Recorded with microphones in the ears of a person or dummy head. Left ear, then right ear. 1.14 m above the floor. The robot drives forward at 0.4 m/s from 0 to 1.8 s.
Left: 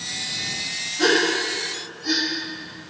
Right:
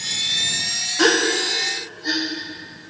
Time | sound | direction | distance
1.0 | a gasp | 65° right (ahead or behind) | 0.7 m